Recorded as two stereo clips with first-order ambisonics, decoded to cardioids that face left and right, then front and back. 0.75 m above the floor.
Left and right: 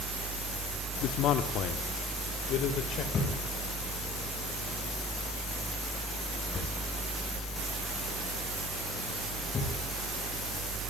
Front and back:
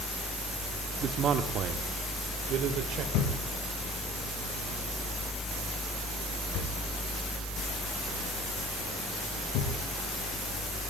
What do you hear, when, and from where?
1.0 s a man speaking: 125° left, 1.2 m; by 3.0 s 135° left, 2.5 m
3.1 s a thud: 25° left, 8 m